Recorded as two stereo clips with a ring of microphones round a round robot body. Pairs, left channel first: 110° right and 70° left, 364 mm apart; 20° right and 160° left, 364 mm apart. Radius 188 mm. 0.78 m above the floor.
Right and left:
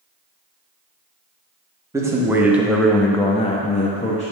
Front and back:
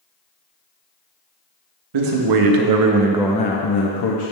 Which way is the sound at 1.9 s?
150° left.